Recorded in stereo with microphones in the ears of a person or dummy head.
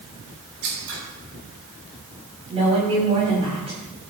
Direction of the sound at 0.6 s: 65° right (ahead or behind).